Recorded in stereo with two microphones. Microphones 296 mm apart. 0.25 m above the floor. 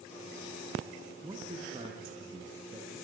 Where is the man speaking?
15° right (ahead or behind), 2.5 m; by 2.9 s 20° right (ahead or behind), 4.5 m.